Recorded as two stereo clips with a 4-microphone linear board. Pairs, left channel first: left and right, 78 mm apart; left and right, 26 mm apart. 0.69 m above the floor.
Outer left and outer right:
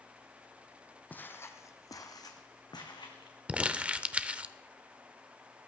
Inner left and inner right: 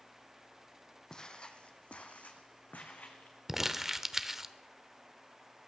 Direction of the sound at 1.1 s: 20° left (ahead or behind).